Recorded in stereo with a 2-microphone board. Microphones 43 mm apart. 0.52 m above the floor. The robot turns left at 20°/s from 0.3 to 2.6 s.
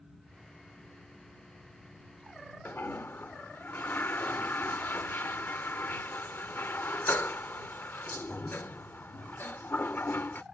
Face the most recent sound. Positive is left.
turn(degrees=55)  # may be behind; listen again after turning